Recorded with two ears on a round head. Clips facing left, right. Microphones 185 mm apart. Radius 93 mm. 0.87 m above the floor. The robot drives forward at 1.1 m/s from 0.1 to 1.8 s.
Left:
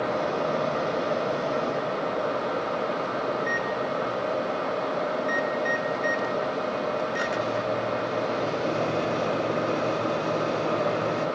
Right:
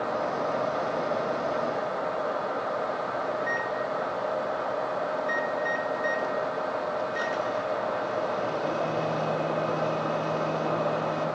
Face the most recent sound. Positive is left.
turn(degrees=25)  # may be behind; listen again after turning